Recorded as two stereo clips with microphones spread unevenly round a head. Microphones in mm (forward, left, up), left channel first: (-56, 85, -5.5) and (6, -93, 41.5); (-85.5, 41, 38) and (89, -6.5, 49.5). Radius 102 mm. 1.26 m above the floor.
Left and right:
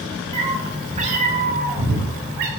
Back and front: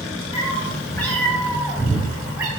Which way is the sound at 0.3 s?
130° right.